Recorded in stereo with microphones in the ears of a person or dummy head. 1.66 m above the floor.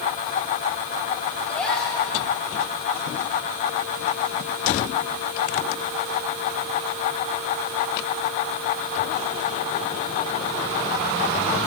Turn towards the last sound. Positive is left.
turn(degrees=10)  # may be behind; listen again after turning